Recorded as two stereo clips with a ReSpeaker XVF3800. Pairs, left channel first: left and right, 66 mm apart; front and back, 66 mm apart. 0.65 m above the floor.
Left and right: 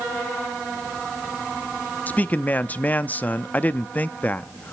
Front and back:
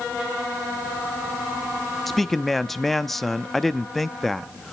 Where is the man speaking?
85° left, 0.5 m.